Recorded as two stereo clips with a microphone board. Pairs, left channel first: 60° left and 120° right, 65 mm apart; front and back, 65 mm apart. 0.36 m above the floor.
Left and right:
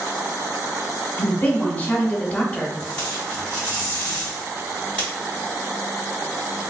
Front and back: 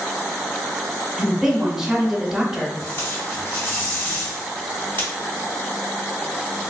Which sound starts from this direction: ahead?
Tape being pulled, at 2.8 s.